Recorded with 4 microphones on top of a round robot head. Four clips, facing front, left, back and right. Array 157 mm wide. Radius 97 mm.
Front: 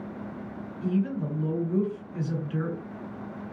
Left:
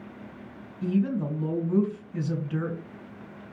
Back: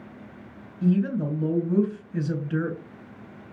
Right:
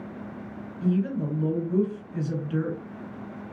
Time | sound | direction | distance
0.8 | a woman speaking | straight behind | 3 m